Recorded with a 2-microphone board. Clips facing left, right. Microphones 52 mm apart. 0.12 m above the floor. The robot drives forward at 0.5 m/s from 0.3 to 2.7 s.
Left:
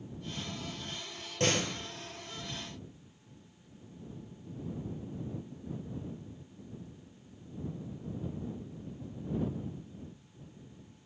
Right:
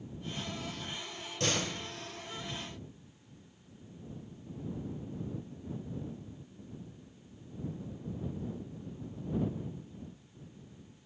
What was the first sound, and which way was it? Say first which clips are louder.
A door slam: left 3 dB; 35° left (ahead or behind).